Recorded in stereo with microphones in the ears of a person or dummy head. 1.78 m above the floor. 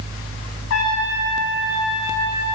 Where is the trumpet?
70° left (ahead or behind), 1.4 m.